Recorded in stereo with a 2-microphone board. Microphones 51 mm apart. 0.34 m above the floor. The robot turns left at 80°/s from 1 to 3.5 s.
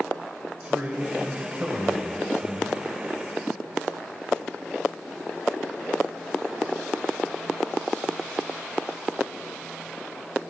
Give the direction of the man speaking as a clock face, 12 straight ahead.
2 o'clock.